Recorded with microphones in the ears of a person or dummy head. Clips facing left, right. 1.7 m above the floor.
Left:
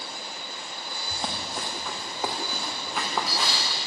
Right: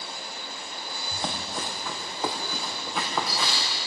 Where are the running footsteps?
Centre (ahead or behind), 3.5 m.